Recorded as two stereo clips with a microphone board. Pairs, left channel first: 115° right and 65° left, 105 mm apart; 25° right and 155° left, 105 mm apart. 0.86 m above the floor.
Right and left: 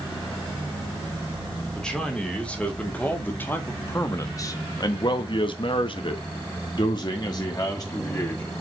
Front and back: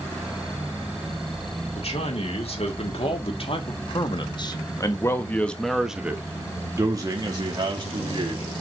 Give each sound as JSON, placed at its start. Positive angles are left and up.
{"t": 1.7, "sound": "a man speaking", "azimuth_deg": -30, "distance_m": 2.5}